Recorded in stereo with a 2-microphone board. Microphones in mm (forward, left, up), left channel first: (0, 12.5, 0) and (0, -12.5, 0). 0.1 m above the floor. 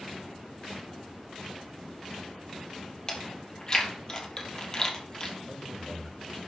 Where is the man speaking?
20° right (ahead or behind), 4.5 m.